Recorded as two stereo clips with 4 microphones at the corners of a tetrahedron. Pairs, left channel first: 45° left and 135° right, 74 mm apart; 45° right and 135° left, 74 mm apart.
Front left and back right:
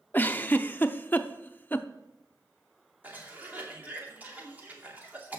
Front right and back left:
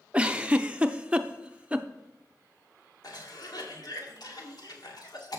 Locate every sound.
0.1 s a giggle: 80° left, 0.6 m
3.0 s a cough: 70° right, 2.5 m